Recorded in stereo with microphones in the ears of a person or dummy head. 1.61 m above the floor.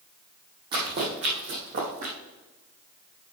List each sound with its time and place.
0.7 s running footsteps: 30° right (ahead or behind), 3 m; by 2.1 s 45° right (ahead or behind), 3 m